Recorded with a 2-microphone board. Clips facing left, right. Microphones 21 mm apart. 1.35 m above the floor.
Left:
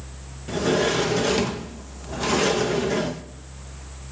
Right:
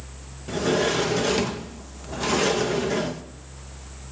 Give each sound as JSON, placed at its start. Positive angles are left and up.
{"t": 0.5, "sound": "a sliding door", "side_deg": 0, "distance_m": 1.0}